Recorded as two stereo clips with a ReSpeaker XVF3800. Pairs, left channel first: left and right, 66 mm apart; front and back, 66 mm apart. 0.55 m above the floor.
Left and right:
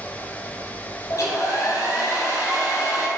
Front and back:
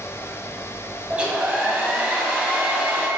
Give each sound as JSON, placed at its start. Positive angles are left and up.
{"t": 1.1, "sound": "a hair dryer", "azimuth_deg": 110, "distance_m": 0.7}